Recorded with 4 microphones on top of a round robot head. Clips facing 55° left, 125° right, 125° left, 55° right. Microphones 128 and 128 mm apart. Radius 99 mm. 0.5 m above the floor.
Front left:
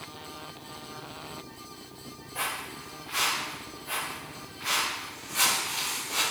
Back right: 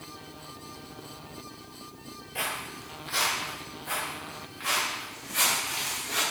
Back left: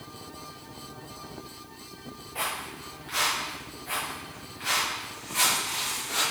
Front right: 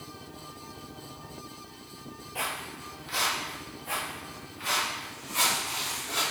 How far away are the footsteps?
About 0.5 m.